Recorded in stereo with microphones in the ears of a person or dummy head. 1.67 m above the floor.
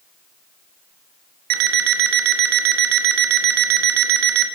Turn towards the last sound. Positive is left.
turn(degrees=-55)  # may be behind; listen again after turning